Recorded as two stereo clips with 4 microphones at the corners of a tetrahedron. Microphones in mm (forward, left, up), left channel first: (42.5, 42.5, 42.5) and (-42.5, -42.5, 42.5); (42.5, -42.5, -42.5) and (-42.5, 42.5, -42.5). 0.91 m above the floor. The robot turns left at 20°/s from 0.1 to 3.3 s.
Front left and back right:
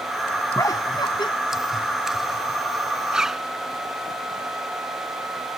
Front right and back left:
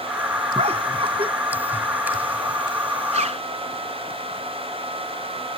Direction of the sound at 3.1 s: 140° left.